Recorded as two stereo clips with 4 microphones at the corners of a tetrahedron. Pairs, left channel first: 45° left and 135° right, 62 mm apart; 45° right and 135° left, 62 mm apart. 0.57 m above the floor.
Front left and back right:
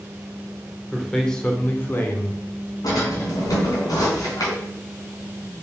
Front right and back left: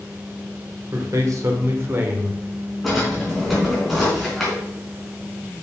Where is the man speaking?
130° left, 2 m; by 2.4 s 75° left, 1.9 m.